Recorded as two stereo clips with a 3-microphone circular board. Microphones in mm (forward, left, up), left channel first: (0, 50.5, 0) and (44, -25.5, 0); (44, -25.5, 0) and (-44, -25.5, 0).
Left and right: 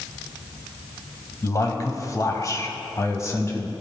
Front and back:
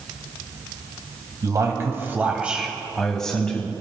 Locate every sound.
1.4 s a man speaking: 155° left, 1.5 m; by 3.7 s 70° left, 1.8 m